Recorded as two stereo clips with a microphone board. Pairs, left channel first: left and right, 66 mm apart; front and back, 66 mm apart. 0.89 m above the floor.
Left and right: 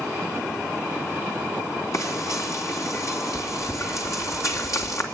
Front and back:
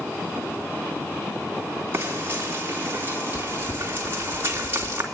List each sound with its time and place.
1.9 s frying: 125° left, 3 m